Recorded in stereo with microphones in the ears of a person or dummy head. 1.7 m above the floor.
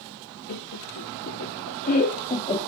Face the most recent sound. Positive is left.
turn(degrees=25)  # may be behind; listen again after turning